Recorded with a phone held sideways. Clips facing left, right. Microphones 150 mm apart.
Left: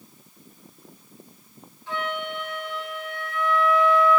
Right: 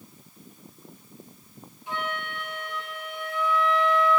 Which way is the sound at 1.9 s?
15° right (ahead or behind).